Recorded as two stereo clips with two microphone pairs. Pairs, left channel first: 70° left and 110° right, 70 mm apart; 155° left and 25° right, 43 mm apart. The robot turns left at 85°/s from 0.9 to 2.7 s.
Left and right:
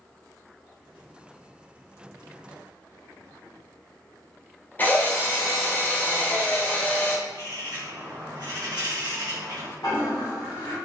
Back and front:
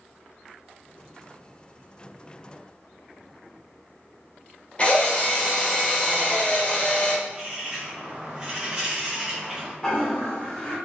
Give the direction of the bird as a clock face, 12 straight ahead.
3 o'clock.